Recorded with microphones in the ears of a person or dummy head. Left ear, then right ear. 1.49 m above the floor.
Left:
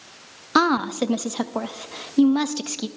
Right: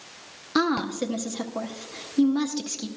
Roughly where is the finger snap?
No finger snap in this recording.